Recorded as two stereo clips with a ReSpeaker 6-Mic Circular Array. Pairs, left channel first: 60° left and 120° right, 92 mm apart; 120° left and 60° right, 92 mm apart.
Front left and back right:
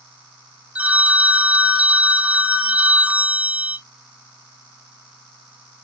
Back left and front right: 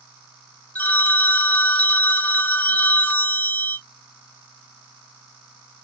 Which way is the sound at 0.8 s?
Straight behind.